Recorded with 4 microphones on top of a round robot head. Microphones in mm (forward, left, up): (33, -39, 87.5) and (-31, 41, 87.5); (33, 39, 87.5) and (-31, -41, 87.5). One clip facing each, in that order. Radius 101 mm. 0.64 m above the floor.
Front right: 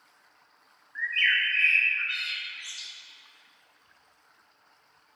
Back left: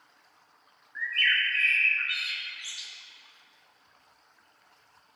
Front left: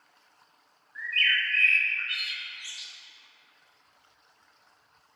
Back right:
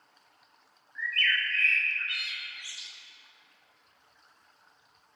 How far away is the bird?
About 1.6 m.